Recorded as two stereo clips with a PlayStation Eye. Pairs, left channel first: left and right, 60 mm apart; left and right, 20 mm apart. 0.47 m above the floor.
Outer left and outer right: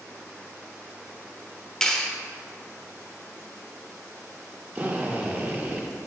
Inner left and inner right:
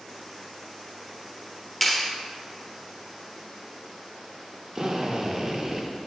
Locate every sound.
1.8 s a clap: 10° left (ahead or behind), 0.8 m
4.8 s a drill: 30° right (ahead or behind), 0.9 m